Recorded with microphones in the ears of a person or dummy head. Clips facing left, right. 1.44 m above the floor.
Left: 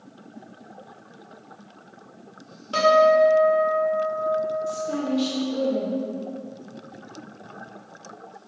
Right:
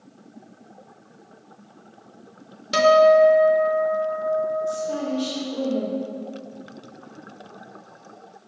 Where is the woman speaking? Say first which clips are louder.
Even; 30° left (ahead or behind), 1.9 m.